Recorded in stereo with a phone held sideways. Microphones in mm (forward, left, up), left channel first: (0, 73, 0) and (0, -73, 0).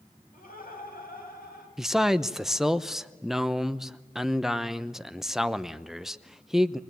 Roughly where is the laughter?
Left.